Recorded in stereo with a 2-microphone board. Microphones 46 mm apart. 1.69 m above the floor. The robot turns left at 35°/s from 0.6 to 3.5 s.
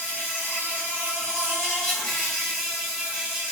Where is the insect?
65° left, 1.5 m; by 3.5 s 35° right, 1.5 m.